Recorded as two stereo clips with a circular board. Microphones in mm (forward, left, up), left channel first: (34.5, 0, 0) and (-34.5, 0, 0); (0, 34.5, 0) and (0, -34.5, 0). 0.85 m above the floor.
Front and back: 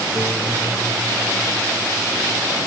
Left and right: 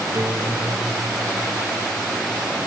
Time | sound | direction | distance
0.1 | a guitar | 130° right | ?